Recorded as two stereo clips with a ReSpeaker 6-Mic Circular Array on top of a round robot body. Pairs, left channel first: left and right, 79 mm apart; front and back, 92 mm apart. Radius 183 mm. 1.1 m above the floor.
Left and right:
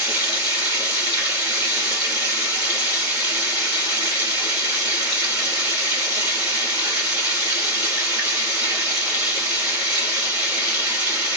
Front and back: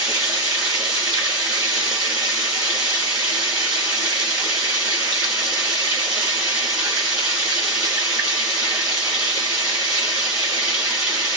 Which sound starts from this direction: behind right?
Running water, at 0.0 s.